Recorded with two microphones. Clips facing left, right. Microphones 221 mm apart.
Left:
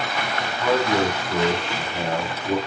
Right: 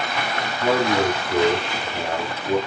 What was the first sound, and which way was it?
A man speaking, 30° right (ahead or behind).